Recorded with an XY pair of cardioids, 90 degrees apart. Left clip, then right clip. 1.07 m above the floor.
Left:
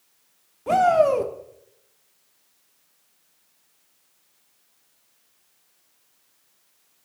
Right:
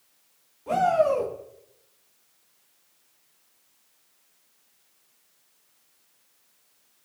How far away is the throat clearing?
I don't hear throat clearing.